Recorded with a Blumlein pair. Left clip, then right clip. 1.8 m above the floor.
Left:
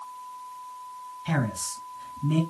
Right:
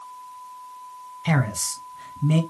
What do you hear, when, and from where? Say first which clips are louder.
1.2 s a man speaking: right 5 dB; 50° right, 1.4 m